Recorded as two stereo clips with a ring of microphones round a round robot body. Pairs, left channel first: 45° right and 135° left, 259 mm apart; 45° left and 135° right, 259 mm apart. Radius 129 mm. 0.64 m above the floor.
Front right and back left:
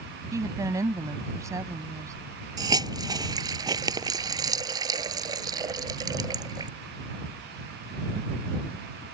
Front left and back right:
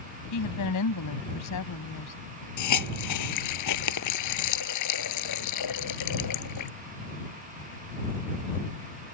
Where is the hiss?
60° left.